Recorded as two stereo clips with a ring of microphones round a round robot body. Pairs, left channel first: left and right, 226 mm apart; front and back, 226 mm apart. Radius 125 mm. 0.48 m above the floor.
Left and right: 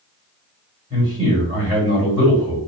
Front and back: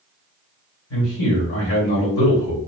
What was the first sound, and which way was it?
A man speaking, 20° right.